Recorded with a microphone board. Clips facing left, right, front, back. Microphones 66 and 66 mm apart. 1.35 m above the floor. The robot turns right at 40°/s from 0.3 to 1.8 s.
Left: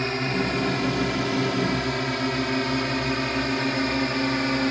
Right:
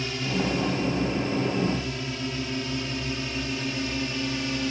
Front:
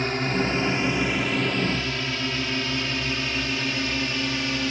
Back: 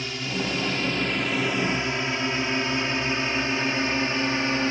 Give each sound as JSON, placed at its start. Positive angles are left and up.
{"t": 0.0, "sound": "a drone", "azimuth_deg": 50}